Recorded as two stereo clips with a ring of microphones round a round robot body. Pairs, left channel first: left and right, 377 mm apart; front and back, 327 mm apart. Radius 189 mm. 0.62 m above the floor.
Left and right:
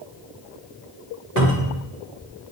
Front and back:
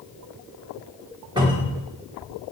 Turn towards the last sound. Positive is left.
turn(degrees=-105)